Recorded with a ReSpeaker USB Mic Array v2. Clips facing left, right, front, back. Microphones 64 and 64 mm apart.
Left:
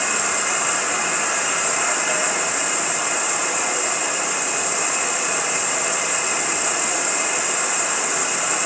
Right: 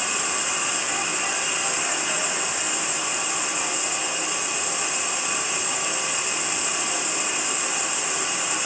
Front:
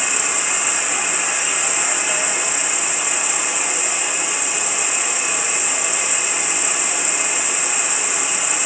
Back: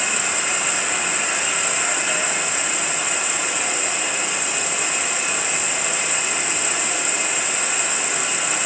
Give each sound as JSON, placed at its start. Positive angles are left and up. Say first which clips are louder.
{"t": 0.0, "sound": "an insect", "louder": "left 5 dB, even", "azimuth_deg": 80, "distance_m": 1.0}